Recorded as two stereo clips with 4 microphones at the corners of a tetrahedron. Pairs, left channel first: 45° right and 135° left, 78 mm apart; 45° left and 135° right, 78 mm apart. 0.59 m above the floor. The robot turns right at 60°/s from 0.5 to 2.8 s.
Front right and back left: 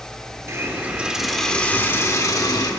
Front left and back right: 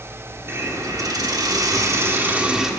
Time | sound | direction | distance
0.5 | a hiss | 175° left | 1.4 m